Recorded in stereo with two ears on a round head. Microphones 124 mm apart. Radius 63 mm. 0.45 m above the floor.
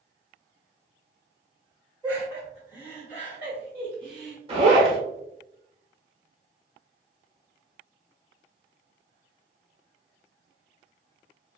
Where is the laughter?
10° right (ahead or behind), 1.4 m.